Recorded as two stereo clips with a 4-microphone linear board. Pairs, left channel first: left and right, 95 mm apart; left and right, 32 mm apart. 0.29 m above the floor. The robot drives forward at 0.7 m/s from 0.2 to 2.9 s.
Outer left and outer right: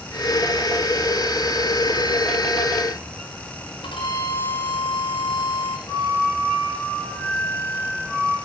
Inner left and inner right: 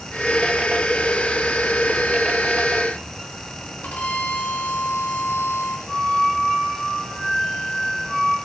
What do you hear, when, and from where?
3.8 s a violin: 60° left (ahead or behind), 2.5 m
5.9 s a flute: 40° left (ahead or behind), 5.5 m